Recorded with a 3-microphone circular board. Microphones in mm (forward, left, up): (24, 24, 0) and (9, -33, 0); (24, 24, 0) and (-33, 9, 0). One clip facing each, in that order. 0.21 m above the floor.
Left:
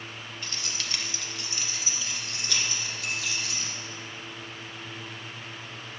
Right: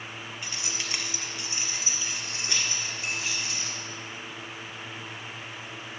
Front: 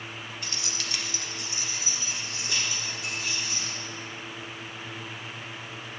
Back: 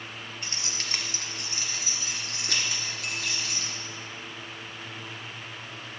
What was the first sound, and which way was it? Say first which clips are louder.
Keys jangling: even, even; 160° right.